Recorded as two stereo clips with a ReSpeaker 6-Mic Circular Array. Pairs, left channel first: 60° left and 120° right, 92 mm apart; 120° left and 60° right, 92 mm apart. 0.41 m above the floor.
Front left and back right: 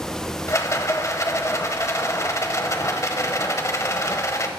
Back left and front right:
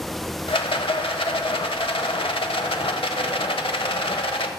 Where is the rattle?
115° left, 0.8 m.